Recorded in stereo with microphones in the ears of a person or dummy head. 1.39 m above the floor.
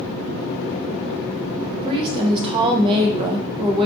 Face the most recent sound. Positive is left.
turn(degrees=-25)  # may be behind; listen again after turning